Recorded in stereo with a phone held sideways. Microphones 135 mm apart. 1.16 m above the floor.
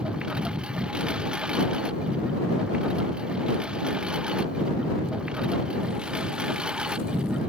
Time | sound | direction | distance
0.0 | a lawn mower | 5° right (ahead or behind) | ?